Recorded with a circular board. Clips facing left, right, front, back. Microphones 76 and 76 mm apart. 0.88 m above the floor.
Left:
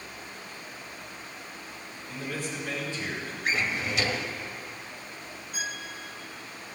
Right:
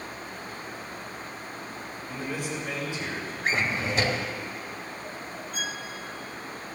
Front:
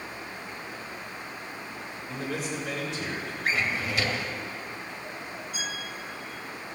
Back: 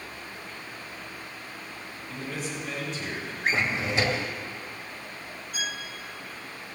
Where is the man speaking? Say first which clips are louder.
Right 2 dB, front 2 dB; 15° right, 4 m.